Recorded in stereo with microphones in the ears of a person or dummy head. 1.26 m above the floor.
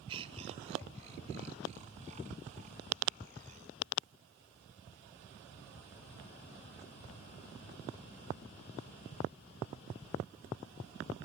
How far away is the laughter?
About 1.5 m.